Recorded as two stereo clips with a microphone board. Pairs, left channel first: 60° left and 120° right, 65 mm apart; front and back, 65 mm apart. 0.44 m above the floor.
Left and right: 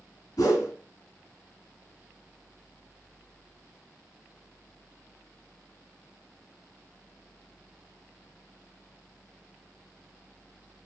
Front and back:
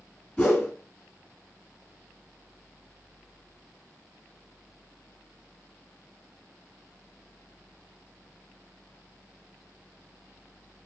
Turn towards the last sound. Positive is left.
turn(degrees=70)